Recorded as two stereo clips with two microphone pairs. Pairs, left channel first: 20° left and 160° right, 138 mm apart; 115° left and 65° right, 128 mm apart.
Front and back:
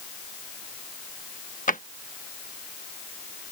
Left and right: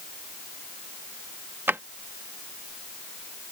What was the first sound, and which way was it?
A drawer, 10° left.